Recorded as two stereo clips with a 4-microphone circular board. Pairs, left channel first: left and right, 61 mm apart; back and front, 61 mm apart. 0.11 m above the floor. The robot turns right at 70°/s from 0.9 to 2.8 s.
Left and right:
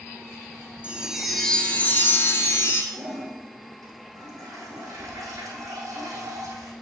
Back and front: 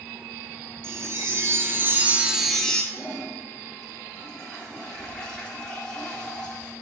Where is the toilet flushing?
100° right, 3.5 m.